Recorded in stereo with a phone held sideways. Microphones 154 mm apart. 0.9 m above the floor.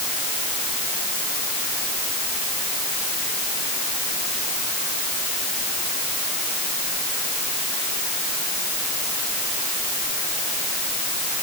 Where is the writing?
No writing in this recording.